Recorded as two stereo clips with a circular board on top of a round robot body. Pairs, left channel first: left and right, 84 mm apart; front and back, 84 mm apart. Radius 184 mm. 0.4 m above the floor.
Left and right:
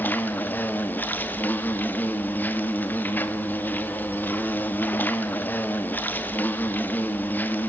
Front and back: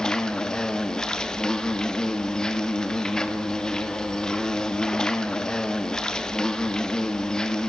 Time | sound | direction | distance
0.0 | an insect | 70° left | 1.7 m